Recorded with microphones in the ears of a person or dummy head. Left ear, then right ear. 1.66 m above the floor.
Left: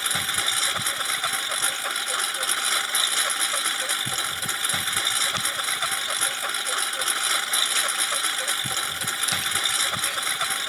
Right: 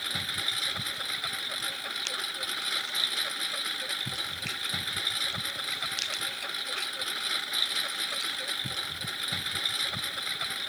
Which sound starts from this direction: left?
A lawn mower, at 0.0 s.